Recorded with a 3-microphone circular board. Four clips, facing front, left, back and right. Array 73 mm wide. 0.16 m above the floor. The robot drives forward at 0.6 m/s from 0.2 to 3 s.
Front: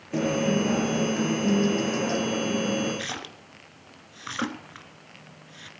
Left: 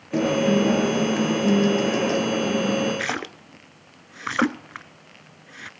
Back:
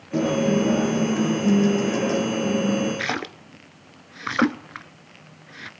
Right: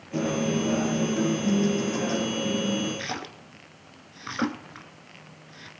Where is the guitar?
85° left, 3 m; by 2.9 s 115° left, 3.5 m.